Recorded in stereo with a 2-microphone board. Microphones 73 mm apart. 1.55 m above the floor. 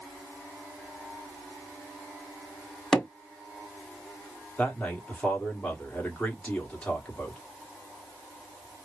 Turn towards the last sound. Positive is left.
turn(degrees=15)  # may be behind; listen again after turning